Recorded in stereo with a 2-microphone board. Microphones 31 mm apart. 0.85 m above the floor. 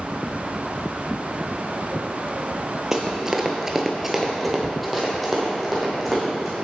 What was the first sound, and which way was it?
Running footsteps, 15° right (ahead or behind).